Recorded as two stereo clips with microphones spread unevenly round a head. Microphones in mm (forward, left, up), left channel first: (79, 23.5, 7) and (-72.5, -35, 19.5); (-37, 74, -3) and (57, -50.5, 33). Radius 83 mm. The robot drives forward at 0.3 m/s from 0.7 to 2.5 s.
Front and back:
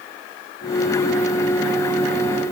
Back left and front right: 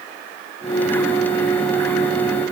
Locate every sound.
Only background noise.